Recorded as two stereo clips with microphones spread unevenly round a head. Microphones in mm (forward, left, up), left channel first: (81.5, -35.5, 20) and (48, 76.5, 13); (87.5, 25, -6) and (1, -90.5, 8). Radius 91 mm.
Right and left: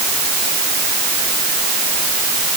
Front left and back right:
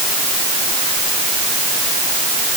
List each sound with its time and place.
Only background noise.